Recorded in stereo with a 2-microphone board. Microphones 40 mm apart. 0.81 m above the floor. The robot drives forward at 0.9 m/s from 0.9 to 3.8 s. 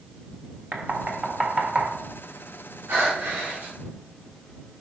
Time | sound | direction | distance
0.7 | knocking | 45° right (ahead or behind) | 1.2 m
2.9 | breathing | 80° right | 4 m